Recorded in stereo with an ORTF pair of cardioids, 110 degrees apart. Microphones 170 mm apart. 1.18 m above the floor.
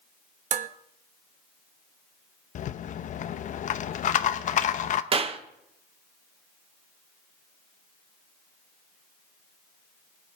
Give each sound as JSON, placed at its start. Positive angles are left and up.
{"t": 0.5, "sound": "dishes clattering", "azimuth_deg": -50, "distance_m": 0.9}
{"t": 2.5, "sound": "a rattle", "azimuth_deg": 50, "distance_m": 0.8}
{"t": 5.1, "sound": "a clap", "azimuth_deg": -35, "distance_m": 1.1}